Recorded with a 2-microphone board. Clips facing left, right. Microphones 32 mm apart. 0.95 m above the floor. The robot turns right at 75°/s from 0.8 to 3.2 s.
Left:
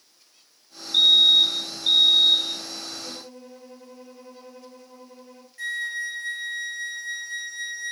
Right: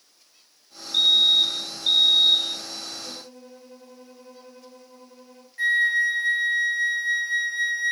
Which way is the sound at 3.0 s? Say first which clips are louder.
Left 1 dB; 40° left (ahead or behind).